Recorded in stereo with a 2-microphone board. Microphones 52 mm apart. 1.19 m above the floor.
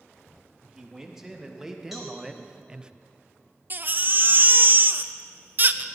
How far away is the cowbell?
About 4 m.